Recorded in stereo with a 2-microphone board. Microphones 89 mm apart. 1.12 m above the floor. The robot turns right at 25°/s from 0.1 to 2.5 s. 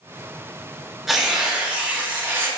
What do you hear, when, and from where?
1.1 s tearing paper: 175° right, 0.6 m; by 2.5 s 140° right, 0.6 m